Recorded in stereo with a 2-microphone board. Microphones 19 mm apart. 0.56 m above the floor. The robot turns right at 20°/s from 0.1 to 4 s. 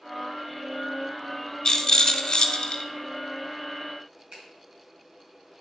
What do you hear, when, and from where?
1.6 s a rattle: 35° left (ahead or behind), 0.9 m; by 2.8 s 50° left (ahead or behind), 0.9 m
4.3 s a finger snap: 60° right (ahead or behind), 4 m